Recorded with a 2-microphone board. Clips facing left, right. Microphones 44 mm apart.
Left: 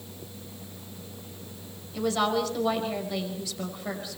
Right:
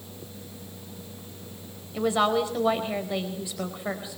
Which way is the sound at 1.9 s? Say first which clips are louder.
Right 3 dB; 20° right (ahead or behind).